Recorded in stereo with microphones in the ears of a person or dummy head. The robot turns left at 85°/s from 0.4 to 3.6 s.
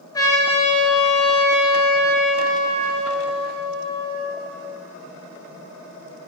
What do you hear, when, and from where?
0.1 s a trumpet: 160° left, 8.5 m; by 4.6 s 110° right, 8.5 m